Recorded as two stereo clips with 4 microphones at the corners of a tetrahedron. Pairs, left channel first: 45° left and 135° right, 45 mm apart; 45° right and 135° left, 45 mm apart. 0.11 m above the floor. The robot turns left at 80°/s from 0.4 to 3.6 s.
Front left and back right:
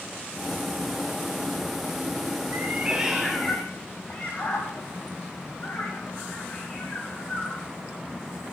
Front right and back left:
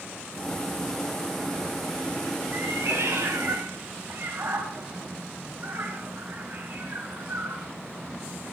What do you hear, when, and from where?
2.5 s a cat meowing: 175° right, 4.5 m; by 7.7 s 100° left, 4.5 m